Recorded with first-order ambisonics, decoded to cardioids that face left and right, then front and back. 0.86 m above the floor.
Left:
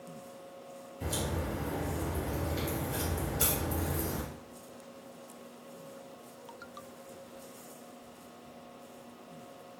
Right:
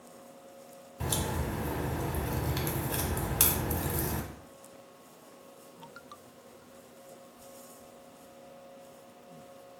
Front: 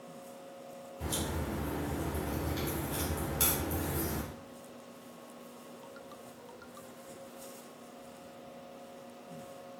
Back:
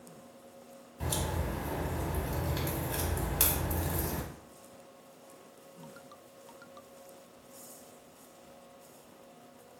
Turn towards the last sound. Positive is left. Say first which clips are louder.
# right 2 dB, back 2 dB
turn(degrees=-110)